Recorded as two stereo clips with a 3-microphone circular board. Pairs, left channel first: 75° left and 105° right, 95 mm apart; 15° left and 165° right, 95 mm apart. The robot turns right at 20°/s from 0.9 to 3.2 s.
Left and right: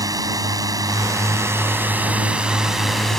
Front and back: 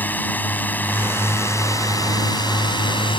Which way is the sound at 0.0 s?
55° right.